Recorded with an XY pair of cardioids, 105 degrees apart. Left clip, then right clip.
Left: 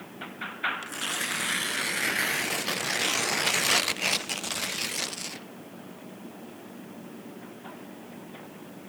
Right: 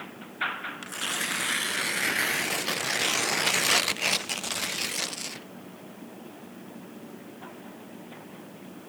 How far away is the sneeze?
I don't hear a sneeze.